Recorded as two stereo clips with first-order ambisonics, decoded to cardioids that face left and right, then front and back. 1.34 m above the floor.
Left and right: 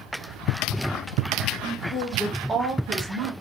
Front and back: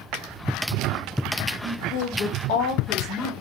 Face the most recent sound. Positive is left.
turn(degrees=-70)